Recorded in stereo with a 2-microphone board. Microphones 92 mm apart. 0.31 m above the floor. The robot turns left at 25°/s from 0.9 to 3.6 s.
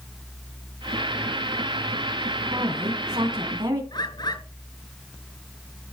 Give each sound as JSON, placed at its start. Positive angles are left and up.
{"t": 2.5, "sound": "a woman speaking", "side_deg": -70, "distance_m": 3.5}
{"t": 3.9, "sound": "a bird", "side_deg": 55, "distance_m": 5.5}